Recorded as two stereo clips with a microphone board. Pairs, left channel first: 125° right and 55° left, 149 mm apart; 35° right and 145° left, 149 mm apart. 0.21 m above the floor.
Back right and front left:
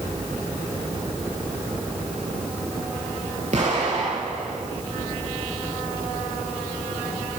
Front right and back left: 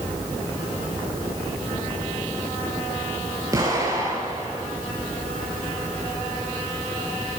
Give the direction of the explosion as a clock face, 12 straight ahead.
9 o'clock.